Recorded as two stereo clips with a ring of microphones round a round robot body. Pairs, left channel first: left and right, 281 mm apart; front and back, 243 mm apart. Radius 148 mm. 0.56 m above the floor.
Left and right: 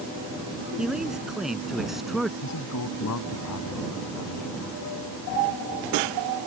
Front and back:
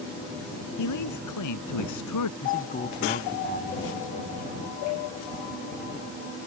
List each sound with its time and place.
0.8 s a man speaking: straight ahead
2.4 s a man speaking: 55° left